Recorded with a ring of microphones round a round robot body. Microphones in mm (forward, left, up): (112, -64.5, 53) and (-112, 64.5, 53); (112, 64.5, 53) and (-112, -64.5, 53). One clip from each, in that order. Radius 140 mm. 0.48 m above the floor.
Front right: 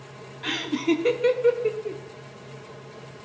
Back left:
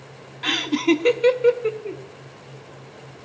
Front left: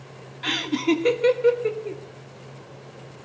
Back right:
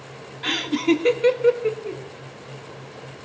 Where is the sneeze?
No sneeze in this recording.